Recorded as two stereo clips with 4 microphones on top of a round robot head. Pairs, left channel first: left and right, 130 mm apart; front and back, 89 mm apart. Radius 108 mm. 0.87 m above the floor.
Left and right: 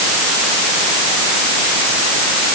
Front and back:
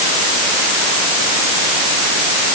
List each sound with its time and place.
Only background noise.